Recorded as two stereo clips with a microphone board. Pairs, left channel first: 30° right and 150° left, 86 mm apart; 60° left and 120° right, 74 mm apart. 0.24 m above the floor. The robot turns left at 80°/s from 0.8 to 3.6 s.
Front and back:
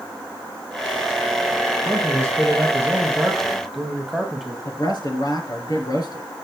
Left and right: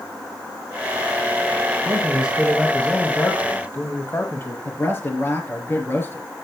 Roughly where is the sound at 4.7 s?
Ahead.